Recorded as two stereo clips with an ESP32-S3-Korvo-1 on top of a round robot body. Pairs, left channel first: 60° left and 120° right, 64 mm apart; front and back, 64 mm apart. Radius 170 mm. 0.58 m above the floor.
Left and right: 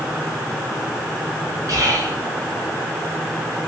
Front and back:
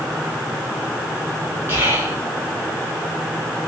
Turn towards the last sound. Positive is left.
turn(degrees=-130)